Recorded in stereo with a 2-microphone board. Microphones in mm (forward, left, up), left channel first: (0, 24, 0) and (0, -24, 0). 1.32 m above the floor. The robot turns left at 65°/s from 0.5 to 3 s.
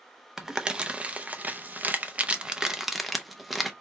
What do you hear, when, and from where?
0.4 s crumpling: 10° right (ahead or behind), 0.6 m; by 3.7 s centre (ahead or behind), 0.6 m